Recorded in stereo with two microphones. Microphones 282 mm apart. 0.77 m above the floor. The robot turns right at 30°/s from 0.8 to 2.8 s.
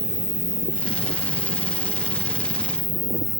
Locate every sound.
0.0 s an insect: 55° right; by 3.4 s 5° left